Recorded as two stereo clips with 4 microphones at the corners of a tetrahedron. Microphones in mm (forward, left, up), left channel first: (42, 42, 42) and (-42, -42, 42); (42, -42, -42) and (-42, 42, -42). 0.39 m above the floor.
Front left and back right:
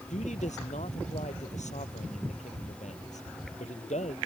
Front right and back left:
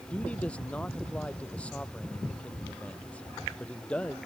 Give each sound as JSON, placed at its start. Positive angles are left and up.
{"t": 0.1, "sound": "a man speaking", "azimuth_deg": 35}